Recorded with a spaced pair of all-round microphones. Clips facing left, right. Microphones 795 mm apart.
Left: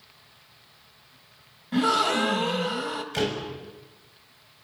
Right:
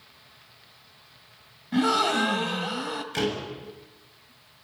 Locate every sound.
1.7 s a gasp: 10° left (ahead or behind), 1.4 m
3.1 s a door slam: 20° left (ahead or behind), 7 m